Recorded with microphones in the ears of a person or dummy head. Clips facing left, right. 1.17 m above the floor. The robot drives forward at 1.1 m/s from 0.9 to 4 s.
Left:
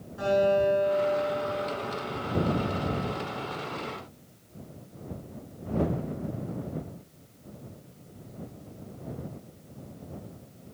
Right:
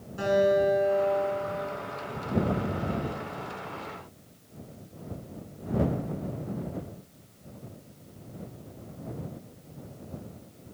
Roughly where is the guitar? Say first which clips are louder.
Even; right.